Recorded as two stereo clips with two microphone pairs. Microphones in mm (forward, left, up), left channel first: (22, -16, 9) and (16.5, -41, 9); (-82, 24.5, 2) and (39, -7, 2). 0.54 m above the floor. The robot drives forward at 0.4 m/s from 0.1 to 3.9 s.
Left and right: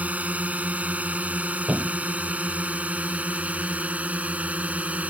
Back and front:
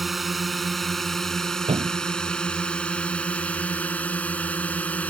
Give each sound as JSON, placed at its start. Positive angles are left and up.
{"t": 0.0, "sound": "a drone", "azimuth_deg": -105}
{"t": 1.7, "sound": "a thud", "azimuth_deg": -55}